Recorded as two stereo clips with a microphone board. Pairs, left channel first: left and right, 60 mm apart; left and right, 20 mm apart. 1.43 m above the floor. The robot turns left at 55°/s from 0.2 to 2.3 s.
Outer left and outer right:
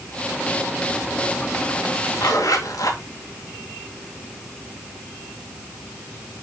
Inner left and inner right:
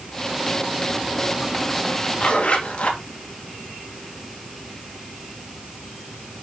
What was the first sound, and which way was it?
A zipper, 85° left.